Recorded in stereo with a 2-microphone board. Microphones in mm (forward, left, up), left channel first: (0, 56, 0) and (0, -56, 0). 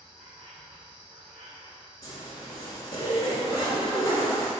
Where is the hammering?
No hammering in this recording.